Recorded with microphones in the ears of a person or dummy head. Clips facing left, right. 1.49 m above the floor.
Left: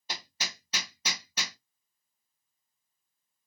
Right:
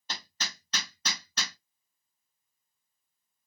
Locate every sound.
0.1 s hammering: 5° left (ahead or behind), 0.7 m